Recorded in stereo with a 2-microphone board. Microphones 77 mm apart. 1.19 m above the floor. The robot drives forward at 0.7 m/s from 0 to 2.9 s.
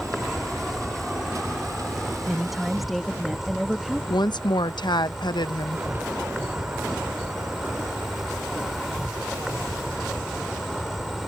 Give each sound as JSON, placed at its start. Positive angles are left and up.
{"t": 0.0, "sound": "an insect", "side_deg": 0}
{"t": 2.3, "sound": "a woman speaking", "side_deg": 0}
{"t": 4.1, "sound": "a woman speaking", "side_deg": 75}